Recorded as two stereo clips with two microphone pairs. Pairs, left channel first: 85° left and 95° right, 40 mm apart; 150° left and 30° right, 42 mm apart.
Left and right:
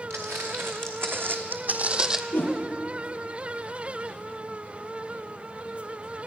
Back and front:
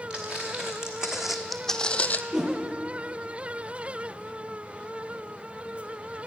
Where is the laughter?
I don't hear laughter.